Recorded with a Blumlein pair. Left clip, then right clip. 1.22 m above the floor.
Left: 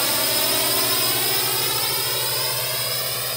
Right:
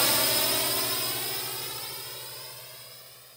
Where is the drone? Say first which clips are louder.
Left 3 dB; straight ahead; by 3.4 s 40° left.